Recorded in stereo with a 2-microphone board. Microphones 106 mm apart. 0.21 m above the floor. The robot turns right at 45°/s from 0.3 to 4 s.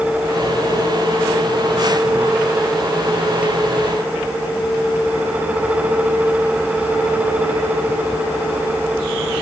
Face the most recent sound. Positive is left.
No sound to turn to.